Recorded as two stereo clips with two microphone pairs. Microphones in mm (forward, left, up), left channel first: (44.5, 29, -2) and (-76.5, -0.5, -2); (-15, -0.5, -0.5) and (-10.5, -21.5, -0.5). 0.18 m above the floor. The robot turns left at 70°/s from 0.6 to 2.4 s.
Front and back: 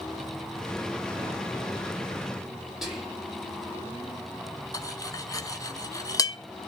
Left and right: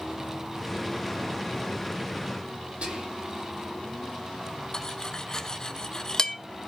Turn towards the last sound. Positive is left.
turn(degrees=60)